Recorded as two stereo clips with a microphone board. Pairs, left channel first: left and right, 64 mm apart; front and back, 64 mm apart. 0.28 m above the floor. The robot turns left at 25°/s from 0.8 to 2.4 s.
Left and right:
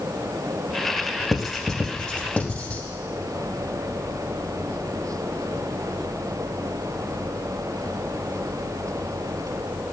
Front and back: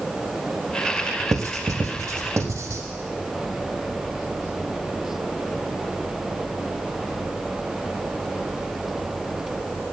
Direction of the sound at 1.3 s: 170° right.